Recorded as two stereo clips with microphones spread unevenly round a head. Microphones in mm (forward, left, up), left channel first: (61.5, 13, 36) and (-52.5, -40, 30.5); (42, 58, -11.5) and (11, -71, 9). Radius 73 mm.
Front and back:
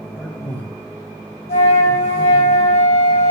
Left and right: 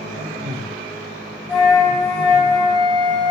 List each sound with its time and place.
0.2 s a man speaking: 55° right, 1.2 m
1.5 s a flute: 10° right, 4 m